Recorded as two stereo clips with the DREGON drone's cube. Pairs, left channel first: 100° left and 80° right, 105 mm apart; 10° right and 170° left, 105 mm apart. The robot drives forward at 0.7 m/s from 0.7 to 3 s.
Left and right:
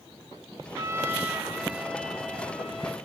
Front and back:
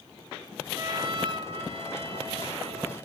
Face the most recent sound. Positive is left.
turn(degrees=-170)